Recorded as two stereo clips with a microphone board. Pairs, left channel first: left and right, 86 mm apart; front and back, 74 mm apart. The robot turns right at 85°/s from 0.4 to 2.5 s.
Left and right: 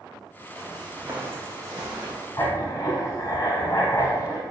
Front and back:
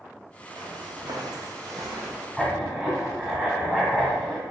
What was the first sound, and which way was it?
Footsteps, straight behind.